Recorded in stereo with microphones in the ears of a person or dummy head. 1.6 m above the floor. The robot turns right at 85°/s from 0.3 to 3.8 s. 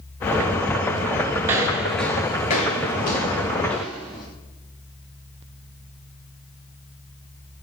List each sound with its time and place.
1.4 s footsteps: 20° right (ahead or behind), 1.6 m; by 4.2 s centre (ahead or behind), 4 m